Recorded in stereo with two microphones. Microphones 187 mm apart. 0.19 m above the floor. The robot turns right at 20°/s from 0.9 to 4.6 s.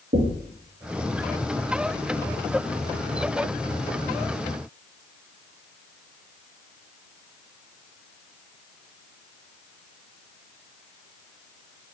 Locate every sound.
0.1 s knocking: 55° right (ahead or behind), 2.5 m